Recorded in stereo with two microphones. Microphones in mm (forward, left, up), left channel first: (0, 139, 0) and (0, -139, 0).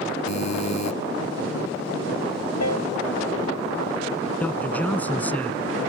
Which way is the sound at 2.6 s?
65° left (ahead or behind).